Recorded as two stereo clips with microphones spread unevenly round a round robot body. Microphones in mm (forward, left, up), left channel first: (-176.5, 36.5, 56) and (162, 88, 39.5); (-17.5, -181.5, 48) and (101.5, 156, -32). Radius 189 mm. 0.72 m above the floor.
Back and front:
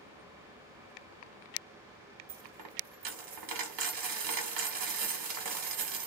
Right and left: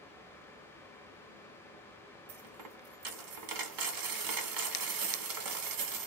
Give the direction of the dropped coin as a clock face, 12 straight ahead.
11 o'clock.